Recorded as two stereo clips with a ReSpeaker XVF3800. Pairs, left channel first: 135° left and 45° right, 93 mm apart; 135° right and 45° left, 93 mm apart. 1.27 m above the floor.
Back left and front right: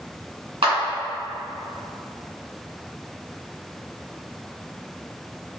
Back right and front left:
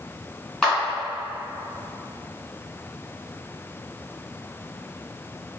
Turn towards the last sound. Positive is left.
turn(degrees=-50)